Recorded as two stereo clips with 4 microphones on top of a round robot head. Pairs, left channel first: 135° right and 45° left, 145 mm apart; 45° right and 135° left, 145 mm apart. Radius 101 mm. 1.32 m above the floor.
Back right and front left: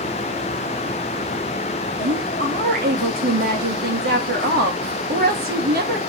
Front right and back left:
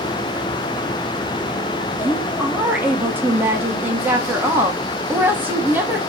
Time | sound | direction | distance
2.0 | a woman speaking | 60° left | 3 m